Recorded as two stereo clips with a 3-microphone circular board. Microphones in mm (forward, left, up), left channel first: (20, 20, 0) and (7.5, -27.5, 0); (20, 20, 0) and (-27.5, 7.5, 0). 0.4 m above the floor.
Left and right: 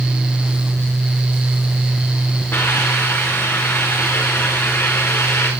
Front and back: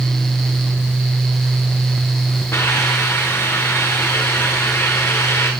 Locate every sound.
2.5 s a hiss: 40° left, 8 m